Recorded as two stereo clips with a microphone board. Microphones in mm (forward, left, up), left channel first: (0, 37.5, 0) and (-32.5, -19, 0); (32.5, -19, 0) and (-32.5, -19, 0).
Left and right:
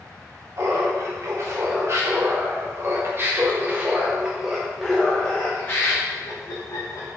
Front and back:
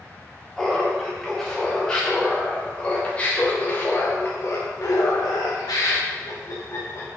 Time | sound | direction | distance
0.6 | laughter | 85° right | 3 m